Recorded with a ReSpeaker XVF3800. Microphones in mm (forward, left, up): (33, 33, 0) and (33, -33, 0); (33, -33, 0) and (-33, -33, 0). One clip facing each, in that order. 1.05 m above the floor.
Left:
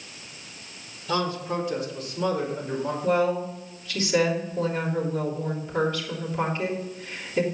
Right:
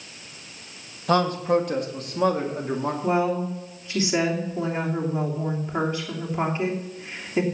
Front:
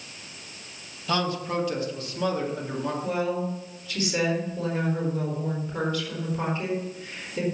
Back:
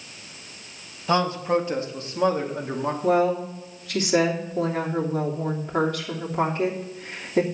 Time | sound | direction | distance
1.1 | a man speaking | 120° right | 1.7 m
3.0 | a woman speaking | 155° right | 3 m